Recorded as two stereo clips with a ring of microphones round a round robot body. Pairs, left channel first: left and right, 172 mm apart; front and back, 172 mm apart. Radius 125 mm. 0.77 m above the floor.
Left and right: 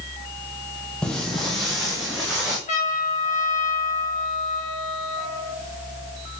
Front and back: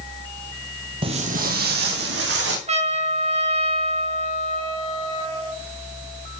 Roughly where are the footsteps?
Behind.